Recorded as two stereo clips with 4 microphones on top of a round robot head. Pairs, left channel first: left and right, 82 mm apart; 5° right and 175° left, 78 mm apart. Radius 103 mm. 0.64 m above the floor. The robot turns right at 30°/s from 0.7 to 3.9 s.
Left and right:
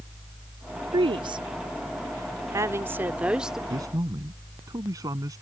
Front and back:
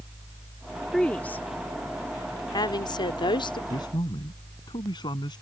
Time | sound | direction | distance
0.9 | a woman speaking | 85° right | ?
3.7 | a man speaking | 45° right | ?